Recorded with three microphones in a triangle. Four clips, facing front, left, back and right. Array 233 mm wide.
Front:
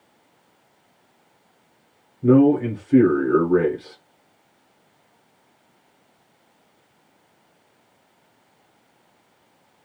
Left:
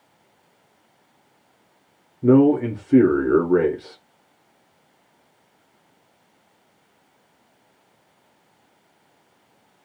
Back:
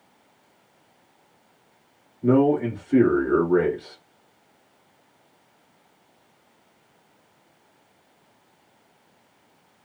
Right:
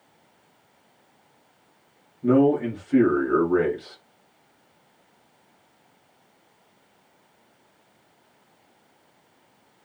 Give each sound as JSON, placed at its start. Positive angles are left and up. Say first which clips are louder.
{"t": 2.2, "sound": "a man speaking", "louder": "left 4 dB, front 4 dB", "azimuth_deg": 90, "distance_m": 1.5}